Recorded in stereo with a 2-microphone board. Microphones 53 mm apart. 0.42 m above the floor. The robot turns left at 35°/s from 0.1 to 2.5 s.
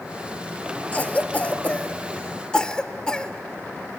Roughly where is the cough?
Left.